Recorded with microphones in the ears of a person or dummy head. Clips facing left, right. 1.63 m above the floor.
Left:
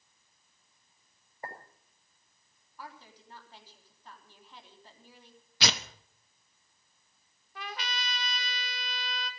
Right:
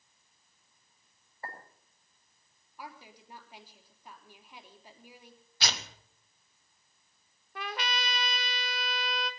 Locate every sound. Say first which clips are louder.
1.4 s a clink: left 1 dB; 15° left (ahead or behind), 5.5 m
2.8 s a woman speaking: right 1 dB; 15° right (ahead or behind), 3.5 m
5.6 s tearing paper: left 4 dB; 55° left (ahead or behind), 1.2 m
7.5 s a trumpet: right 4 dB; 50° right (ahead or behind), 1.2 m